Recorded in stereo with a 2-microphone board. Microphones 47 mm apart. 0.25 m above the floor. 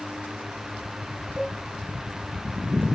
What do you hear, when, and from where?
1.4 s a cowbell: 15° right (ahead or behind), 3 m